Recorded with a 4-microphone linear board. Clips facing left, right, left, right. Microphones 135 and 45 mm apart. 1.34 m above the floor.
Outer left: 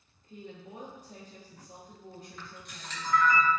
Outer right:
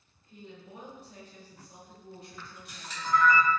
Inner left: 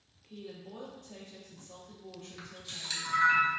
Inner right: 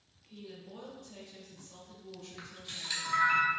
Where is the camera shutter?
10° right (ahead or behind), 0.9 m.